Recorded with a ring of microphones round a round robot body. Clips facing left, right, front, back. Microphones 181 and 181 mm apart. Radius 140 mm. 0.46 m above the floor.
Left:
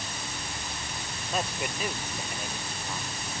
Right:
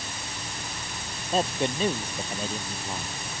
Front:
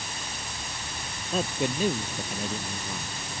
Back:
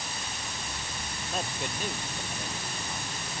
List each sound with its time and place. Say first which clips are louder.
1.3 s a man speaking: right 7 dB, front 8 dB; 30° right